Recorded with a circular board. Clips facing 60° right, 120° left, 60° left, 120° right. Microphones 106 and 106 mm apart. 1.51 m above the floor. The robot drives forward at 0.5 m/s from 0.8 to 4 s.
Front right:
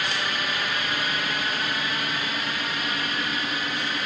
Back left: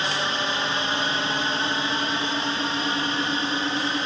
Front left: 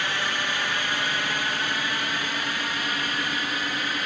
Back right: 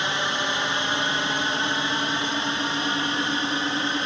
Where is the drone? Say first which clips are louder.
Back left 3 dB, back right 2 dB; 175° left; by 4.1 s straight behind.